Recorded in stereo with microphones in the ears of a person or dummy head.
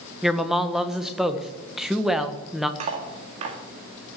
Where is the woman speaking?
Centre (ahead or behind), 1.4 m.